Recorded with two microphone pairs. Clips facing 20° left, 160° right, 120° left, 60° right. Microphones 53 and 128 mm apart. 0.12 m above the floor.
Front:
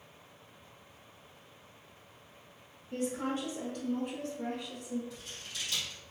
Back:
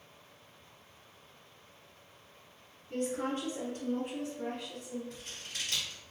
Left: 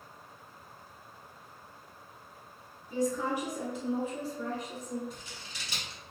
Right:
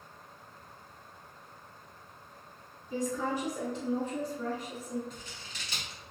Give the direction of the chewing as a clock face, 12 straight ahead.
I don't hear chewing.